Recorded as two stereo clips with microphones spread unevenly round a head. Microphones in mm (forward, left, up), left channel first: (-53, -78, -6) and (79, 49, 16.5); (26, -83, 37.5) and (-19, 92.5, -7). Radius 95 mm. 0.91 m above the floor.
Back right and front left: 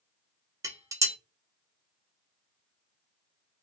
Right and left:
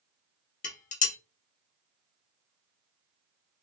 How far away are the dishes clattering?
About 0.7 m.